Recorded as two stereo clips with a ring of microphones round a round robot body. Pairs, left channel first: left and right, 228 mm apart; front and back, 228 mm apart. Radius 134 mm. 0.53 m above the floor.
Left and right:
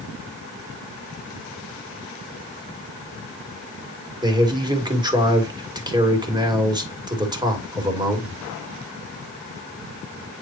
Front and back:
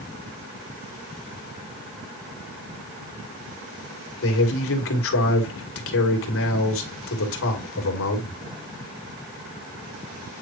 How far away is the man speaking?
About 2.5 m.